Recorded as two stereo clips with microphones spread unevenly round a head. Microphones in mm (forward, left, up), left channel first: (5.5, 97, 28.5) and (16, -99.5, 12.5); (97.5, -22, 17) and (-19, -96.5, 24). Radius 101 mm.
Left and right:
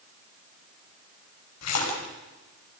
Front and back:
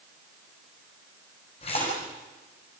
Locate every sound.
1.6 s a splash: 95° left, 5.5 m